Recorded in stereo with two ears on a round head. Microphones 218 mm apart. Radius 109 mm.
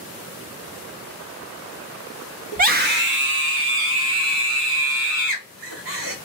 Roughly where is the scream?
Right.